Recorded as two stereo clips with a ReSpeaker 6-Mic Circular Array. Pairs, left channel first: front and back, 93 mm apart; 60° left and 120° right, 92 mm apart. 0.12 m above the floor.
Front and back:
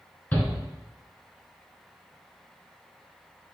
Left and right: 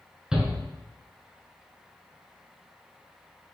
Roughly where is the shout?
Ahead right.